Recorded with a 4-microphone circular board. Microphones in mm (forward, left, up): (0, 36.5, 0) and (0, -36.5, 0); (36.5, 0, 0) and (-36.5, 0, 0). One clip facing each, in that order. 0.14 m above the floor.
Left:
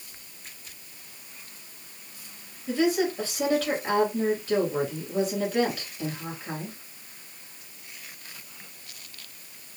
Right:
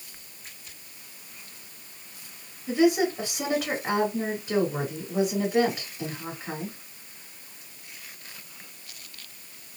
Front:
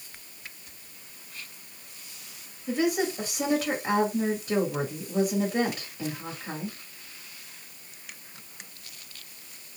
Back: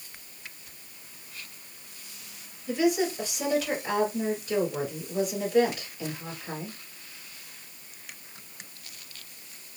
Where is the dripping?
I don't hear dripping.